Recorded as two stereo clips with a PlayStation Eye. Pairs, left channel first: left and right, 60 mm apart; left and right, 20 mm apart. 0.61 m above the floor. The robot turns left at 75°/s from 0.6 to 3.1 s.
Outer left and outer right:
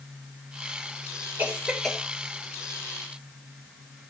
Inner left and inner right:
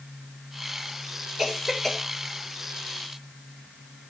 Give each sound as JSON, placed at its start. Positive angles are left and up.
{"t": 1.4, "sound": "a cough", "side_deg": -30, "distance_m": 2.5}